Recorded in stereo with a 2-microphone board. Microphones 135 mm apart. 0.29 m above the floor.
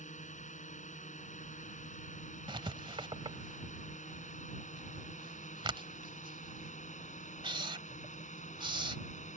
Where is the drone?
65° left (ahead or behind).